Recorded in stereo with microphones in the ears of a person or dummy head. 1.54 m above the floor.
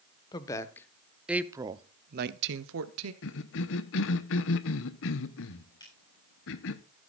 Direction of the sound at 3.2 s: 70° left (ahead or behind).